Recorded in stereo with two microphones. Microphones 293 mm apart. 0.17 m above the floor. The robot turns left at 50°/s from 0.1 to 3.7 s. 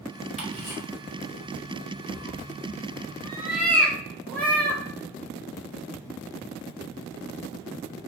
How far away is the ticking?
About 1.9 m.